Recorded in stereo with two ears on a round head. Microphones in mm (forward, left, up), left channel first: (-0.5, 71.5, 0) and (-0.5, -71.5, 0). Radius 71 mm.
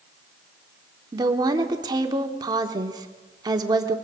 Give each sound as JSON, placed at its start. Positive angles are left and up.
{"t": 1.1, "sound": "a woman speaking", "side_deg": -25, "distance_m": 1.2}